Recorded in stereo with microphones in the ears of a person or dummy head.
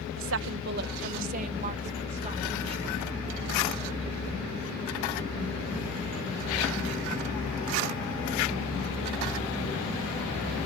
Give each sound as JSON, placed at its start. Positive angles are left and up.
{"t": 0.2, "sound": "a woman speaking", "side_deg": -70}